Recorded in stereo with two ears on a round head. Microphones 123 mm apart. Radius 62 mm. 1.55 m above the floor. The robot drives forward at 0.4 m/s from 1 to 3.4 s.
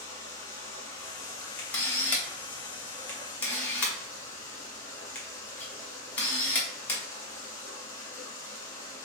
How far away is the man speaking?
I don't hear a man speaking.